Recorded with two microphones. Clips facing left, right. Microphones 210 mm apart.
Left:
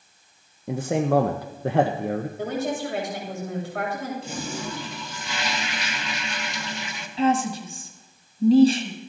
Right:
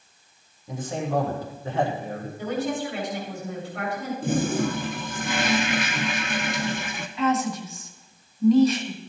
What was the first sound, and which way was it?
A man speaking, 75° left (ahead or behind).